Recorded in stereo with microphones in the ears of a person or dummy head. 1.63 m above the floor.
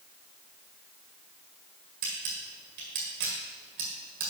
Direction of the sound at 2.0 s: 55° right (ahead or behind).